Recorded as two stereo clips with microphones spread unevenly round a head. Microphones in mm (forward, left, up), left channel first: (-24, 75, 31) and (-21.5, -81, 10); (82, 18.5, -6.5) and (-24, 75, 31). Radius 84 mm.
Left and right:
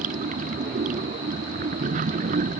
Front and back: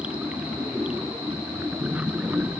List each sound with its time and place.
0.0 s running water: 125° right